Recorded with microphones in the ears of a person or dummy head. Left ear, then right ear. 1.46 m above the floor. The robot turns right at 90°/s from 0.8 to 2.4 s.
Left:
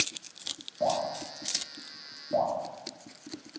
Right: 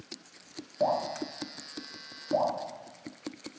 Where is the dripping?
30° right (ahead or behind), 0.8 m; by 2.5 s 5° right (ahead or behind), 0.8 m.